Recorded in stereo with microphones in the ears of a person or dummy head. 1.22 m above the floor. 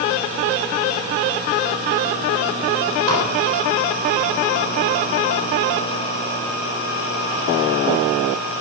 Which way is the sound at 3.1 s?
85° right.